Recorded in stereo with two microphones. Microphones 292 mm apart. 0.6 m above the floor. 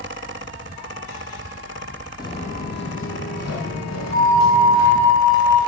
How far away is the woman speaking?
No woman speaking in this recording.